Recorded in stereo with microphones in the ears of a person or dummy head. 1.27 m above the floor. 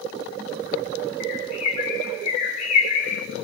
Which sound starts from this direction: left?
A bird, at 1.2 s.